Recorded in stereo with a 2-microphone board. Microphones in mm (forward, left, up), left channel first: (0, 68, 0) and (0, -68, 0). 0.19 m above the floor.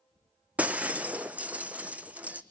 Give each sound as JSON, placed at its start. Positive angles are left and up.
{"t": 0.6, "sound": "breaking glass", "side_deg": -10, "distance_m": 0.9}